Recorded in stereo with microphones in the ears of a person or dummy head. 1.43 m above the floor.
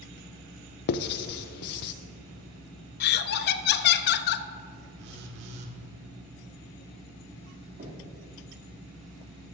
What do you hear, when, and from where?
0.9 s writing: 55° left (ahead or behind), 0.5 m
3.0 s laughter: 55° left (ahead or behind), 0.6 m
5.0 s a phone buzzing: 60° right (ahead or behind), 1.6 m
7.8 s knocking: 45° right (ahead or behind), 2.5 m